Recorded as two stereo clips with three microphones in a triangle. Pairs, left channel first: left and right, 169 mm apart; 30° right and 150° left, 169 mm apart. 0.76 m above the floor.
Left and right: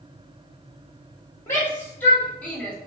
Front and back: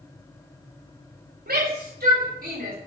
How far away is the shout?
About 5 m.